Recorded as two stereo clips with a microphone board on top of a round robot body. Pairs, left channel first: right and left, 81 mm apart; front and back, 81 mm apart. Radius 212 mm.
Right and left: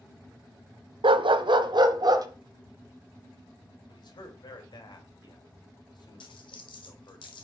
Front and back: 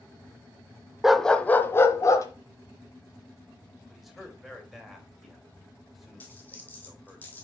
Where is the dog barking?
95° left, 0.7 m; by 2.3 s 50° left, 1.4 m.